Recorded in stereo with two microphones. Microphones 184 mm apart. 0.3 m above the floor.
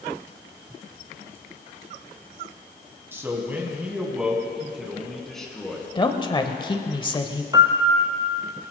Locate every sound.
3.1 s a man speaking: 15° right (ahead or behind), 2.5 m; by 5.8 s 5° left (ahead or behind), 3.5 m
6.0 s a woman speaking: 25° left (ahead or behind), 1.1 m
7.5 s a piano: 20° right (ahead or behind), 1.2 m